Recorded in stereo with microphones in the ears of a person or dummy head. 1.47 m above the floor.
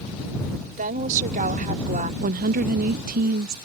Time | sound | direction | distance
0.8 | a woman speaking | 45° right (ahead or behind) | ?
2.2 | a woman speaking | 40° right (ahead or behind) | ?